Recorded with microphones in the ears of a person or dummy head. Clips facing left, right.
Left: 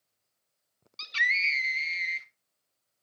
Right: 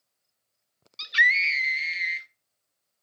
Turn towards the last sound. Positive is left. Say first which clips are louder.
# right 6 dB
turn(degrees=-10)  # may be behind; listen again after turning